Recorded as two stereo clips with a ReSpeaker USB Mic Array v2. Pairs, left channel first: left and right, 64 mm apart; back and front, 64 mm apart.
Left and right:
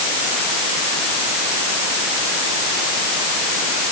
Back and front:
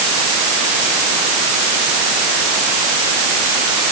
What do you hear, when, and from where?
Only background noise.